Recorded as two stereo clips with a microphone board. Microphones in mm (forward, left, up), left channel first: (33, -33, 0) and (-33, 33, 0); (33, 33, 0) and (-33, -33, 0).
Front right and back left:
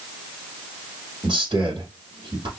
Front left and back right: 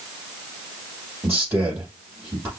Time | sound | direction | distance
1.2 | a man speaking | 165° left | 3.5 m